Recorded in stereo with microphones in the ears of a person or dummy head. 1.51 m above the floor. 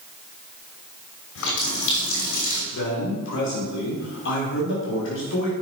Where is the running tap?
75° left (ahead or behind), 3 m.